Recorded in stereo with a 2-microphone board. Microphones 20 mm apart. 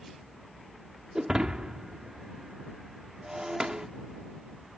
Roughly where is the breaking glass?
Right.